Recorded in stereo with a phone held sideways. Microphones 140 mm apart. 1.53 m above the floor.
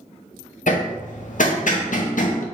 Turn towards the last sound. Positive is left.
turn(degrees=65)  # may be behind; listen again after turning